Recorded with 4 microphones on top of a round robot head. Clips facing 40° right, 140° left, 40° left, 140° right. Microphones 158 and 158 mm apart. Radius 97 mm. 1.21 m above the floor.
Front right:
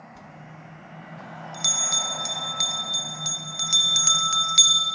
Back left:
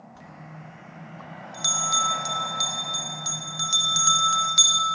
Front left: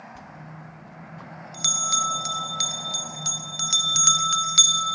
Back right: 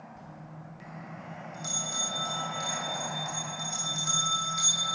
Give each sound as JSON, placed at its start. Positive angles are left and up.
{"t": 0.1, "sound": "a bell", "azimuth_deg": 35, "distance_m": 0.8}